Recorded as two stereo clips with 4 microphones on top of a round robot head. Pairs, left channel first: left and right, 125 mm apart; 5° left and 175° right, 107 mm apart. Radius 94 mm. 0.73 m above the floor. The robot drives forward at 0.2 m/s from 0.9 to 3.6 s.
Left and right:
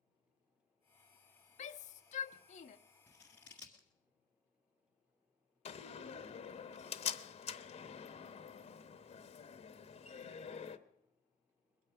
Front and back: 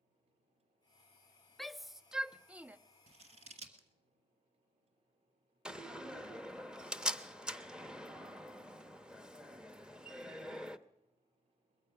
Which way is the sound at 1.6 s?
90° left.